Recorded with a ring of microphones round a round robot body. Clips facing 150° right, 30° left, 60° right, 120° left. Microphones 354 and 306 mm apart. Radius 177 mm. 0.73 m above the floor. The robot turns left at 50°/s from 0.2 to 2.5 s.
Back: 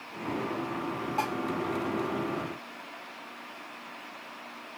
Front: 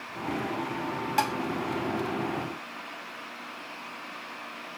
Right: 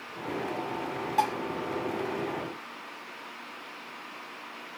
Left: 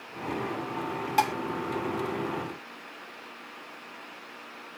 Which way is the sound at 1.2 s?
75° left.